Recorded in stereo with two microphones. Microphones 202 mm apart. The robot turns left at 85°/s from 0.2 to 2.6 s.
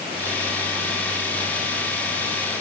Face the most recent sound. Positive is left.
No sound to turn to.